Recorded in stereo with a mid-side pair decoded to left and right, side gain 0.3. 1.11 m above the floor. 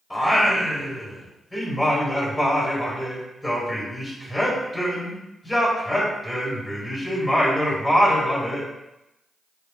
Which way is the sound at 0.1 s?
15° left.